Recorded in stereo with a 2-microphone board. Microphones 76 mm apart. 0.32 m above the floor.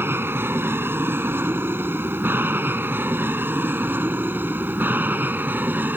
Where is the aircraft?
30° right (ahead or behind); by 6.0 s 25° right (ahead or behind).